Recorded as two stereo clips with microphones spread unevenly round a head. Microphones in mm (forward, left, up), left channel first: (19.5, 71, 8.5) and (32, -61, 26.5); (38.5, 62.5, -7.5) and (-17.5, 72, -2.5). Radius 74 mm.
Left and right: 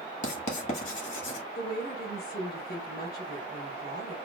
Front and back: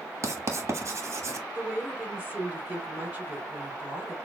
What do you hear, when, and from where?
0.2 s writing: 130° left, 1.2 m
1.6 s a woman speaking: 105° left, 3 m